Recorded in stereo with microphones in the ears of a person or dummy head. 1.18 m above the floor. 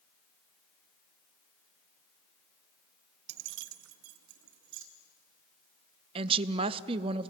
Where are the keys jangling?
60° right (ahead or behind), 0.5 m; by 4.8 s 65° right (ahead or behind), 2 m.